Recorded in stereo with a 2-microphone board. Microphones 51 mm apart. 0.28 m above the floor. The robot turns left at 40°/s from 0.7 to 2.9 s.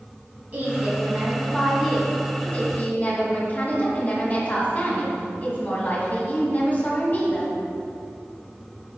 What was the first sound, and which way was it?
A woman speaking, 140° right.